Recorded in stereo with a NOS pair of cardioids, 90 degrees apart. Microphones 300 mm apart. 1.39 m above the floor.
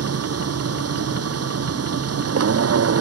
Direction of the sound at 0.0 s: 50° right.